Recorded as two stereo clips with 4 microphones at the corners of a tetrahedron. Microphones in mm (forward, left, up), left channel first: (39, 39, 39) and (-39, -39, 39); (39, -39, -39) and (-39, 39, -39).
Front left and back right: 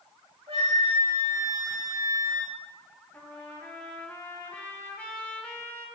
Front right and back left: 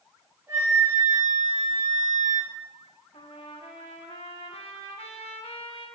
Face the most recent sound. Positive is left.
turn(degrees=-30)